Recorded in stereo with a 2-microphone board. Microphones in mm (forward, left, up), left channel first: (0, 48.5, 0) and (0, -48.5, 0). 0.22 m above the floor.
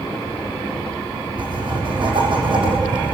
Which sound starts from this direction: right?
Writing, at 1.4 s.